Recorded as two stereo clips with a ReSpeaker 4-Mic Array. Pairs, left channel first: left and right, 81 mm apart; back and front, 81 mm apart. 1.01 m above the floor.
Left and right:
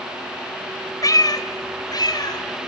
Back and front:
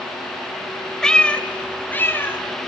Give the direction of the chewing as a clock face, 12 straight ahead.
I don't hear chewing.